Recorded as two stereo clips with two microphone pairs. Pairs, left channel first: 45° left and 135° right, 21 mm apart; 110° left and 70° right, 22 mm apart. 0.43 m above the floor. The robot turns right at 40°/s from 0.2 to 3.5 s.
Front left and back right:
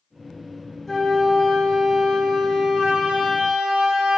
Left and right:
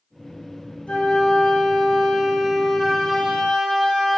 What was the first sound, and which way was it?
A flute, 125° left.